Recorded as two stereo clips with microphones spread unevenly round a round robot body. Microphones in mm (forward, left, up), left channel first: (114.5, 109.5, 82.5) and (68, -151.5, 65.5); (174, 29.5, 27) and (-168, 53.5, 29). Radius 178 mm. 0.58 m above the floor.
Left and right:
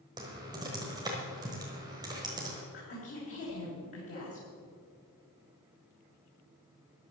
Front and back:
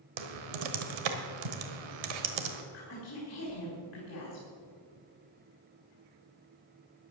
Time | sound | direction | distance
0.2 | typing on a keyboard | straight behind | 1.3 m
2.7 | a woman speaking | 45° left | 4 m